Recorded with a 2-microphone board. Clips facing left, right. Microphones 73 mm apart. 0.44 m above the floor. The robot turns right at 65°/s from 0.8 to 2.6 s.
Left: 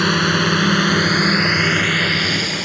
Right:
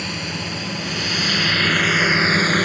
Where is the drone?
60° left (ahead or behind); by 2.6 s 45° right (ahead or behind).